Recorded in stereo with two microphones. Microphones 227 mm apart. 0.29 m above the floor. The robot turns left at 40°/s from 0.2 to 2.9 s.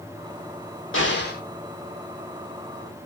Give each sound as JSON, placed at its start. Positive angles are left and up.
{"t": 0.9, "sound": "an explosion", "side_deg": 55, "distance_m": 2.5}